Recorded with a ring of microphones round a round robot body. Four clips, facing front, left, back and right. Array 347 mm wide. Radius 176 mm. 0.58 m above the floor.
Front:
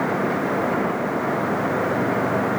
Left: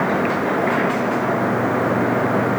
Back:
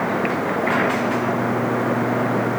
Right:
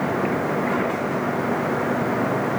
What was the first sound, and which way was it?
Only background noise.